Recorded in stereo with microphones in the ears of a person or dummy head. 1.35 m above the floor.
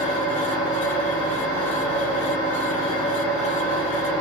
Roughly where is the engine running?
Left.